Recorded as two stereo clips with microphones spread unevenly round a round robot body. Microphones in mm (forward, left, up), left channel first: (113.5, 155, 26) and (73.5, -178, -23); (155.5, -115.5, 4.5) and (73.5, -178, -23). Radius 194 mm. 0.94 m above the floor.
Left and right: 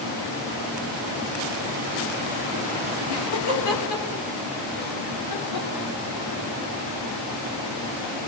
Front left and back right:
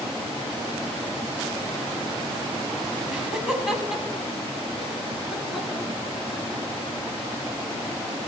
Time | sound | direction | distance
3.1 | laughter | 80° left | 5.5 m